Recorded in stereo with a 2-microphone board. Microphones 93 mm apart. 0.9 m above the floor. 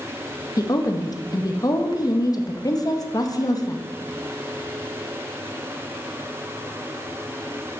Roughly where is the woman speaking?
Left.